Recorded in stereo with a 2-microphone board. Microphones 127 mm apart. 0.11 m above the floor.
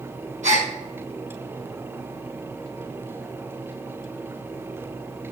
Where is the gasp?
70° right (ahead or behind), 3 m.